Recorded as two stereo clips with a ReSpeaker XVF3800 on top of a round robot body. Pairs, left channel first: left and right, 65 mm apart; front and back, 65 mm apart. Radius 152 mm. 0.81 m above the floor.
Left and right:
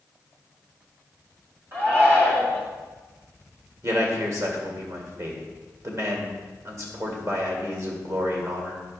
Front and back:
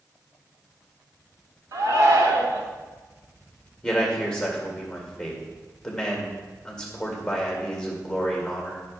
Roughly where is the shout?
Behind right.